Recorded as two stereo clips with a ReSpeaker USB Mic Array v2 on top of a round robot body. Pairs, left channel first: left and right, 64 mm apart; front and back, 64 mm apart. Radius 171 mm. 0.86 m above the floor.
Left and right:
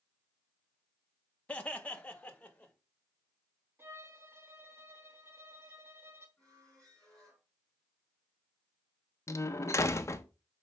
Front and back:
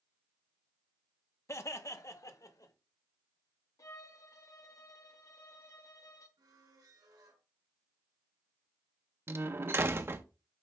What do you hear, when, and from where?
1.5 s laughter: 20° left, 1.2 m; by 2.7 s 15° left, 2 m
3.8 s a violin: 40° right, 0.9 m
6.4 s a squeak: 165° left, 3 m
9.3 s a door slam: 130° left, 0.9 m